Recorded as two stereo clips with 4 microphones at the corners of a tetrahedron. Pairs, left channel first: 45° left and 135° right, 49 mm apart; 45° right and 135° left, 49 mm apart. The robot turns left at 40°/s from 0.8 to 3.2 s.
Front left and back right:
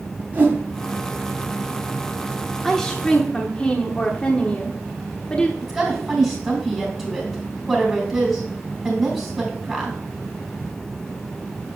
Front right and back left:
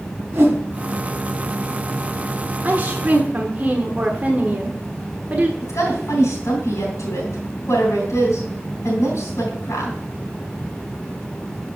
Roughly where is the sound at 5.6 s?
Ahead right.